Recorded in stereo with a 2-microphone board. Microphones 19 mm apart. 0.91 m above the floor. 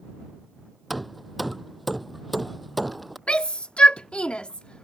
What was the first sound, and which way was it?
Hammering, centre (ahead or behind).